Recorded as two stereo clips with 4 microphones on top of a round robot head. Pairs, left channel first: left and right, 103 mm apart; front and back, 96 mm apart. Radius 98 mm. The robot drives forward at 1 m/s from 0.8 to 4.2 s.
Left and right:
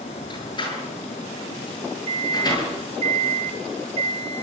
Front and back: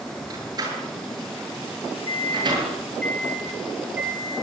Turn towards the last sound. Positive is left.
turn(degrees=-115)